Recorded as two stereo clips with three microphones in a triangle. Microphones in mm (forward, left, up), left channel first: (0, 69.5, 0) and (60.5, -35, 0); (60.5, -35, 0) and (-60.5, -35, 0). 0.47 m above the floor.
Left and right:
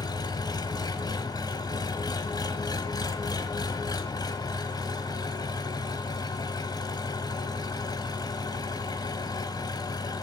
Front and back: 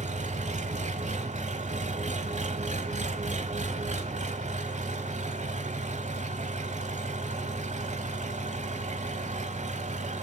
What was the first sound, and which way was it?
An engine running, 175° left.